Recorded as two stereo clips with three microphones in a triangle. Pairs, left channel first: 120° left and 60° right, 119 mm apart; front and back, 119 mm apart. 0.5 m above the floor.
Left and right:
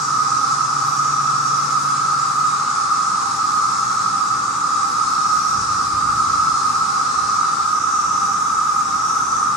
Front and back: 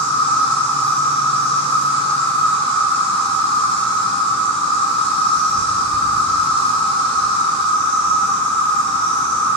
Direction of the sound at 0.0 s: 30° left.